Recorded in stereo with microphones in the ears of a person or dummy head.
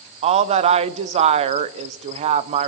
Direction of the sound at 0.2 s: 35° right (ahead or behind).